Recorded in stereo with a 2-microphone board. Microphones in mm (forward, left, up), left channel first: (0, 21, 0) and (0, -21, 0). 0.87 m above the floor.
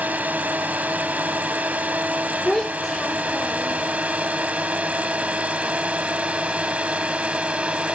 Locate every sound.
0.0 s a drone: 35° right (ahead or behind); by 7.9 s 25° right (ahead or behind)
2.5 s a child speaking: 15° left (ahead or behind)